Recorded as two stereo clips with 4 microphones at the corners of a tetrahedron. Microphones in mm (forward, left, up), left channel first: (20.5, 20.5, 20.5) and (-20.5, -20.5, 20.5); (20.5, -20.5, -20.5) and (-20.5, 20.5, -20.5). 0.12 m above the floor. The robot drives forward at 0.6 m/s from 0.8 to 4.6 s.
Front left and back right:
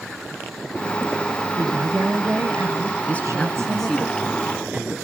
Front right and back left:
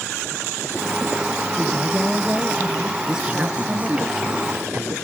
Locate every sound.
1.6 s a woman speaking: 145° right, 1.5 m; by 4.1 s 165° right, 2.5 m
3.1 s a man speaking: 65° left, 1.1 m; by 5.0 s 145° left, 1.3 m